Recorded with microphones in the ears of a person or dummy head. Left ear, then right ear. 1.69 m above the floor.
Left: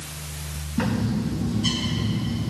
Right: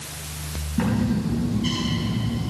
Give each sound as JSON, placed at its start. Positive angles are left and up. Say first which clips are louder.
{"t": 0.8, "sound": "a bird", "louder": "right 1 dB", "side_deg": -5, "distance_m": 4.5}